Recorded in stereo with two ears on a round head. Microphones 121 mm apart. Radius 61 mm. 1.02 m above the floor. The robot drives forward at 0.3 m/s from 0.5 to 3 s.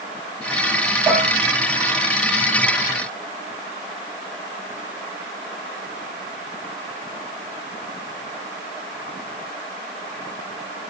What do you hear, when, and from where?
1.1 s dishes clattering: 5° right (ahead or behind), 2.5 m